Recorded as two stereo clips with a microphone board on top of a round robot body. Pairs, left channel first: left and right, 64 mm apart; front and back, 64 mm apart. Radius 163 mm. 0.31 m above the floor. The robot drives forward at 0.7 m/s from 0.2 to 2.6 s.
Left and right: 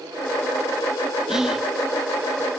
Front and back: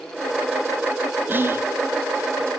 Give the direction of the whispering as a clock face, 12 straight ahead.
6 o'clock.